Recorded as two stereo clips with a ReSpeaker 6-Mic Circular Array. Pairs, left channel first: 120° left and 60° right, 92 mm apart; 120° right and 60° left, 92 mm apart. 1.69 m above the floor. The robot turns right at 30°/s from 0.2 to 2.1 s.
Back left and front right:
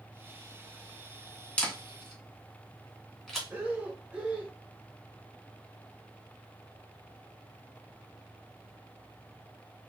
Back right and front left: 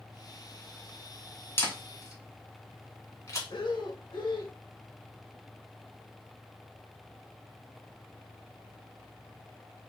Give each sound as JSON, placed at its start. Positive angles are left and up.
{"t": 1.6, "sound": "a camera shutter", "azimuth_deg": -170, "distance_m": 2.0}
{"t": 3.5, "sound": "breathing", "azimuth_deg": -135, "distance_m": 1.0}